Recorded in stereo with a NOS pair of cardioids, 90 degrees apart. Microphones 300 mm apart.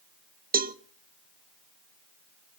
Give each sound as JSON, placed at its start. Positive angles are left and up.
{"t": 0.5, "sound": "a cowbell", "azimuth_deg": -25, "distance_m": 0.9}